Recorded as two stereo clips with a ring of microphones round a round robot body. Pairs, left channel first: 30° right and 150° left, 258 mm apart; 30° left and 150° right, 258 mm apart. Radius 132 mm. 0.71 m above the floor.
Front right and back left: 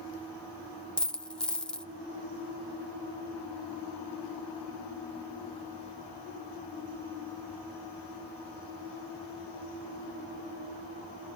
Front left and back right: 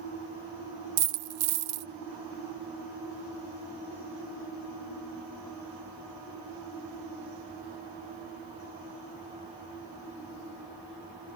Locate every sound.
1.0 s a dropped coin: 115° right, 0.9 m